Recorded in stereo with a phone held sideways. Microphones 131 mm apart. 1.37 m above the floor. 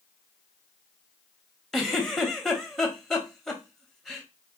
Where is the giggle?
5° left (ahead or behind), 0.7 m.